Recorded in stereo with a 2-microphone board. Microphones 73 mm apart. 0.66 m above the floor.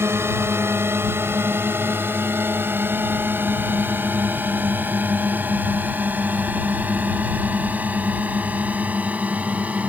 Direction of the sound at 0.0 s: 35° right (ahead or behind).